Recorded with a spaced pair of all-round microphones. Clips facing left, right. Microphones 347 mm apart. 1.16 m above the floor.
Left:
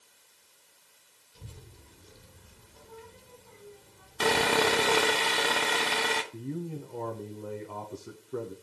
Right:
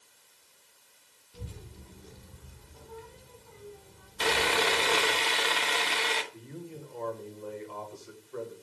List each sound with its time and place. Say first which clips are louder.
1.3 s a child speaking: right 5 dB; 75° right (ahead or behind), 2.5 m; by 5.2 s 40° right (ahead or behind), 4.5 m
4.2 s sawing: left 3 dB; 60° left (ahead or behind), 1.0 m
6.3 s a man speaking: left 7 dB; 60° left (ahead or behind), 1.1 m